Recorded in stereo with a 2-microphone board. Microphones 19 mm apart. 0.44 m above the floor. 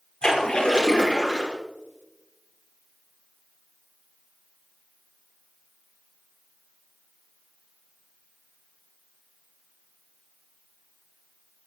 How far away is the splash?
About 5.5 m.